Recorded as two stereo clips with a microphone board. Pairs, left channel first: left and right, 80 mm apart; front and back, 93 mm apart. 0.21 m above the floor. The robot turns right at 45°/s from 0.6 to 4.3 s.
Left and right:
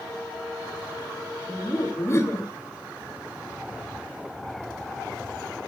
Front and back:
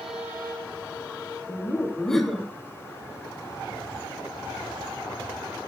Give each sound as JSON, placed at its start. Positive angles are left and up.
{"t": 1.5, "sound": "laughter", "azimuth_deg": 55, "distance_m": 1.6}